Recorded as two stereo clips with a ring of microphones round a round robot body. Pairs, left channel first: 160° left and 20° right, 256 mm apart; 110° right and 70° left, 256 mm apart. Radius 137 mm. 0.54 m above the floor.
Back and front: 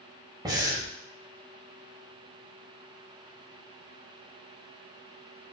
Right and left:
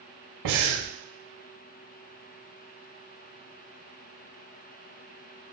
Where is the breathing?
55° left, 0.8 m.